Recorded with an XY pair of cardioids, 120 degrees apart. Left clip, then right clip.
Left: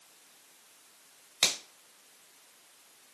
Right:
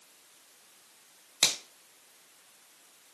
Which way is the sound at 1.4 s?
15° right.